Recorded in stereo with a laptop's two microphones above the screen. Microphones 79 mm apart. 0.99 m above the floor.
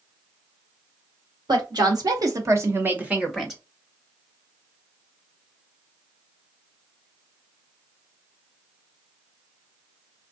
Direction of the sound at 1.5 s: 70° right (ahead or behind).